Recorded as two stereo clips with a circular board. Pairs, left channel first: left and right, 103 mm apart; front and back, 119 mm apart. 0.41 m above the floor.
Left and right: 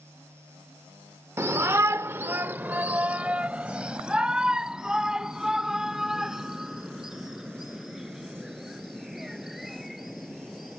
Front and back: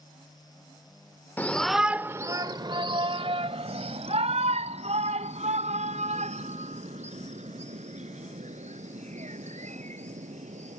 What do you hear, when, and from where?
1.4 s a shout: 60° right; by 10.8 s straight behind